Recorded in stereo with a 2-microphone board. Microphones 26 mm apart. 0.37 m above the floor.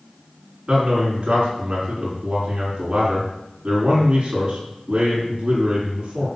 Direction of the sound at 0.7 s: 40° right (ahead or behind).